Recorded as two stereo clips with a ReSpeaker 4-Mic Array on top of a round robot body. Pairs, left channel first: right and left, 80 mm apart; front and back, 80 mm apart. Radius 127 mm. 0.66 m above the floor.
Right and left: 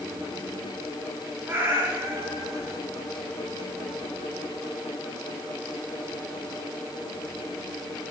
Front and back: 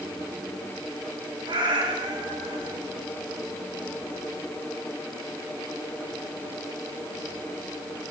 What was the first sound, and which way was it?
A cat meowing, 155° left.